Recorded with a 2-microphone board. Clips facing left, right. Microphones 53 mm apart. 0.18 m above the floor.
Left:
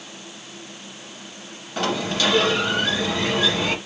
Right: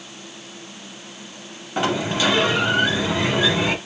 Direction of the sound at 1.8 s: 15° right (ahead or behind).